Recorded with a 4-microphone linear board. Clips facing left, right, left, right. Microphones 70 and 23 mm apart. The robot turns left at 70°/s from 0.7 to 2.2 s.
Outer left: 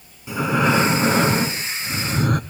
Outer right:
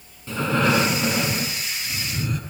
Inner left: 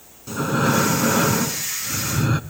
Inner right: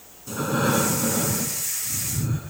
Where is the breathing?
165° left, 1.6 m; by 2.4 s 60° left, 1.6 m.